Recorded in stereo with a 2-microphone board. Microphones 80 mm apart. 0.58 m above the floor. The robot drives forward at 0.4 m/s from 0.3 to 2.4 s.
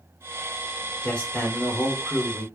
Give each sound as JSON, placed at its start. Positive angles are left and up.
{"t": 1.0, "sound": "a man speaking", "side_deg": 15, "distance_m": 1.5}